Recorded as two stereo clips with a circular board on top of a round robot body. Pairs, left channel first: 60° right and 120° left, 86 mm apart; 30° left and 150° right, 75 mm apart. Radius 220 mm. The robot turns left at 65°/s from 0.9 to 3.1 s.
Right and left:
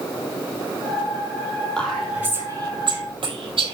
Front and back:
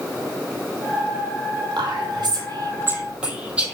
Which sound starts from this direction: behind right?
Whispering, at 1.8 s.